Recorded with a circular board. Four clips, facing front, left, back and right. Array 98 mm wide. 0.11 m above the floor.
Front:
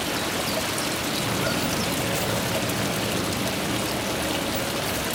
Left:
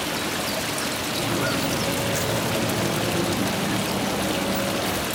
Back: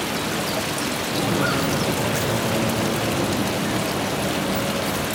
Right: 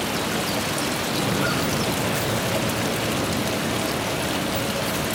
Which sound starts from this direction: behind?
Footsteps, at 1.1 s.